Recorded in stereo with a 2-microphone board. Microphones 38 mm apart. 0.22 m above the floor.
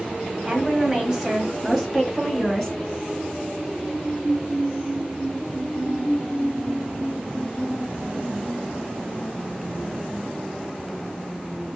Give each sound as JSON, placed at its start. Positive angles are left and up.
{"t": 0.5, "sound": "a woman speaking", "side_deg": -20, "distance_m": 1.1}